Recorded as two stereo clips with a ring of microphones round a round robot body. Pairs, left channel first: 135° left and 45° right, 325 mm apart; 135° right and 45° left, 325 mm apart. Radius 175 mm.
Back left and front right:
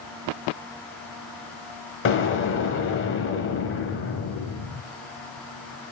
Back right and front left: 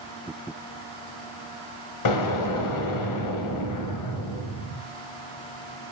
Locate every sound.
2.0 s an explosion: 170° right, 1.8 m